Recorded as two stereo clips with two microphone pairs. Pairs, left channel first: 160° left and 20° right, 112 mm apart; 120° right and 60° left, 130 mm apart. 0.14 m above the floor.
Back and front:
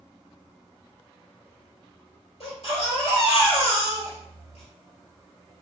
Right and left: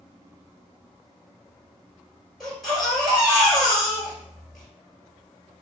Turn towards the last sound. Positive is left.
turn(degrees=150)